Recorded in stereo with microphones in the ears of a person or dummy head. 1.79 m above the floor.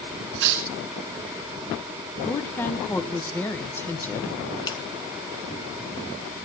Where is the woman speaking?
15° left (ahead or behind), 1.7 m.